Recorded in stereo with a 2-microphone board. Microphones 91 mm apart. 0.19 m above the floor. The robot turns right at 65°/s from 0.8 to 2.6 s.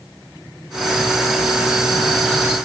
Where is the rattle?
I don't hear a rattle.